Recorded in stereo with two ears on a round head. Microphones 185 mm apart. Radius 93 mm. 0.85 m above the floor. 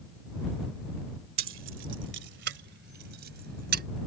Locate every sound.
1.4 s keys jangling: 70° right (ahead or behind); by 3.8 s 50° right (ahead or behind)